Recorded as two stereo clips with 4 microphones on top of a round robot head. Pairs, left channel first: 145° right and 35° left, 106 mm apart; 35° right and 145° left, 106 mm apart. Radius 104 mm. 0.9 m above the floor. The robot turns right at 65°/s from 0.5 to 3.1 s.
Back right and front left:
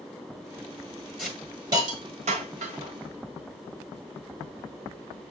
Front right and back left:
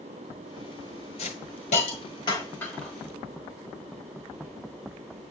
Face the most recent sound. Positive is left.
turn(degrees=70)